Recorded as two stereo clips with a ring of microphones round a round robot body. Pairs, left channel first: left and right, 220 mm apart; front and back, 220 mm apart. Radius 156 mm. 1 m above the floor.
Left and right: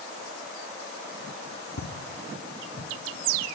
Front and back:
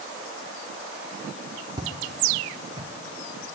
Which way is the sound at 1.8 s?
110° left.